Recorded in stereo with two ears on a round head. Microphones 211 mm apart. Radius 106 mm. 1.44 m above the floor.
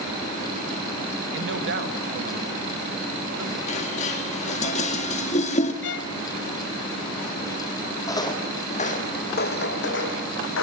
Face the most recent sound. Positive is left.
turn(degrees=65)  # may be behind; listen again after turning